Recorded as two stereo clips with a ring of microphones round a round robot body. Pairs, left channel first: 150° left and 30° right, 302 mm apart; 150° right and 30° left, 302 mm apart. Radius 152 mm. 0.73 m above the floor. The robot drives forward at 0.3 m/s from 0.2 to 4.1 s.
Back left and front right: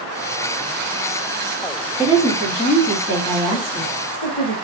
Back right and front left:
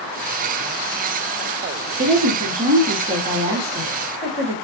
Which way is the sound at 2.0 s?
80° left.